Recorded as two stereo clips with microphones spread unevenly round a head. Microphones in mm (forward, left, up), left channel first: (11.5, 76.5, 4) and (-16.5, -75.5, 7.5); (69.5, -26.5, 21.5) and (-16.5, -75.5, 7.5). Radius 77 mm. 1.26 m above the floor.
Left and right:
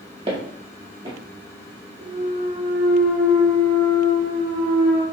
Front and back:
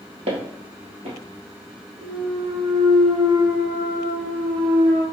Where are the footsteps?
150° right, 1.8 m.